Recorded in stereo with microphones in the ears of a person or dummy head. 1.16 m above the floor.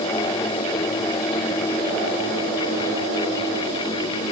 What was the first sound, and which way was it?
Only background noise.